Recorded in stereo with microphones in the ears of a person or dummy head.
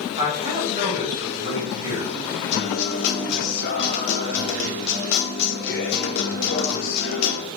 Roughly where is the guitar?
Left.